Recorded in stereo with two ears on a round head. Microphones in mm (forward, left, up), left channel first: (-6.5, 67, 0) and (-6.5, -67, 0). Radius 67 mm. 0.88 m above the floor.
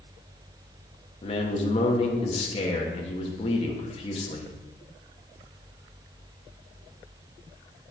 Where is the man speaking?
40° left (ahead or behind), 1.3 m.